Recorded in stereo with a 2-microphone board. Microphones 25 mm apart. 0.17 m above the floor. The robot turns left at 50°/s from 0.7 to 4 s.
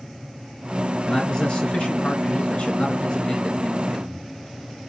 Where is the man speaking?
155° left, 3 m; by 4.3 s 5° left, 3 m.